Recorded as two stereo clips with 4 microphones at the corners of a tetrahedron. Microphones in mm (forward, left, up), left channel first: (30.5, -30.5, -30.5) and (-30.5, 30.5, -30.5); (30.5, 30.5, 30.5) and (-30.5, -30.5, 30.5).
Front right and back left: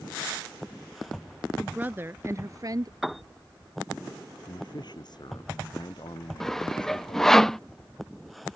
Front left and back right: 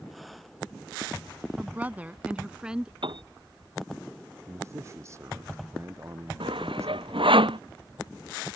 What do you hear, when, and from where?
1.6 s a woman speaking: 165° right; by 2.9 s 145° left
3.0 s a piano: 135° right
4.5 s a man speaking: 80° right
6.4 s sawing: 130° right